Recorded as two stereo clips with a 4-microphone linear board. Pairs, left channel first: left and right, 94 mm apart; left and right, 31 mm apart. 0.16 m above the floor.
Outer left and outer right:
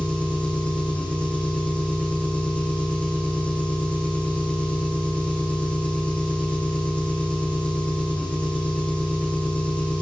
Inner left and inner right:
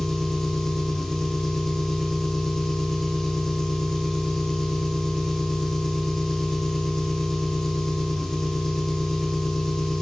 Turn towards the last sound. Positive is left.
turn(degrees=15)  # may be behind; listen again after turning